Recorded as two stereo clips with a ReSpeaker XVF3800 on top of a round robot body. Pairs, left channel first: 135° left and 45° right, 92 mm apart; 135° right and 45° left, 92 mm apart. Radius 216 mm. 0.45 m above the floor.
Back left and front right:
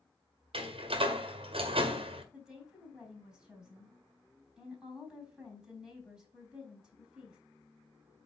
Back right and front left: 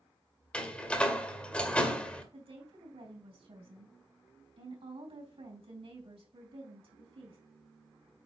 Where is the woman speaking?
35° left, 4 m.